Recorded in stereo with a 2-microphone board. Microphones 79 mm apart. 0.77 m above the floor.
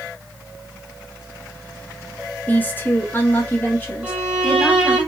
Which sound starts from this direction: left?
A woman speaking, at 2.5 s.